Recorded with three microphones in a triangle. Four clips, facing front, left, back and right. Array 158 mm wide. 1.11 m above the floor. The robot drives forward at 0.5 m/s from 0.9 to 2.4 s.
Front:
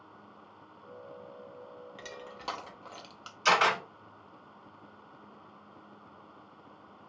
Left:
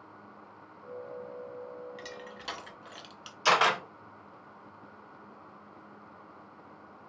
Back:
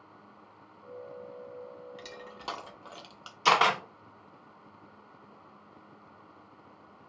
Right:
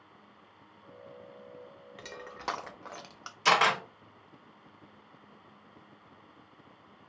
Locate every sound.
2.0 s crushing: 60° right, 0.5 m; by 3.4 s 95° right, 0.5 m
3.5 s a camera shutter: 160° right, 1.7 m